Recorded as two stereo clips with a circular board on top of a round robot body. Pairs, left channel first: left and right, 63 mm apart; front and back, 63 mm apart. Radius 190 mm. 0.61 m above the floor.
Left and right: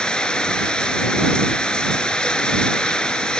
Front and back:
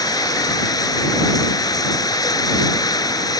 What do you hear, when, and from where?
0.0 s running water: 15° left